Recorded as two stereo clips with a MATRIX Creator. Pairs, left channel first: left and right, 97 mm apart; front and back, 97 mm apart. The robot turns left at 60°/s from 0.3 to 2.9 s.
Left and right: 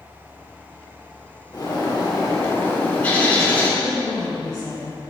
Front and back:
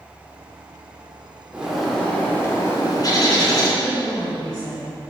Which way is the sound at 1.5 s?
105° left.